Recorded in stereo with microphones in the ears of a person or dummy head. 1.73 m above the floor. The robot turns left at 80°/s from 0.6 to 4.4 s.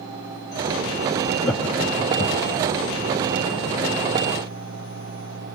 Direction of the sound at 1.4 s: 5° left (ahead or behind).